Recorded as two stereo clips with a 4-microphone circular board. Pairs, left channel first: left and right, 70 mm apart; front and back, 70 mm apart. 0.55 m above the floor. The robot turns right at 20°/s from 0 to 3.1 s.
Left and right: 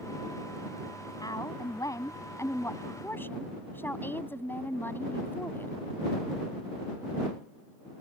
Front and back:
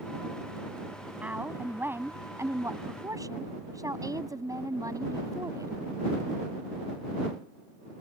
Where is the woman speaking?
110° left; by 5.7 s 150° left.